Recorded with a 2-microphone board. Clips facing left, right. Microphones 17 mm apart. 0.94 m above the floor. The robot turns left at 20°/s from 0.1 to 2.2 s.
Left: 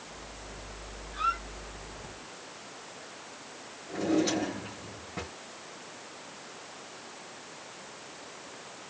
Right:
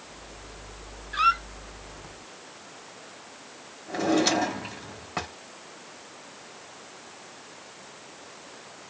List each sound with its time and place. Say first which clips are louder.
1.1 s a squeak: right 8 dB; 45° right (ahead or behind), 0.6 m; by 1.4 s 40° right (ahead or behind), 0.6 m
3.9 s a drawer: right 4 dB; 60° right (ahead or behind), 2 m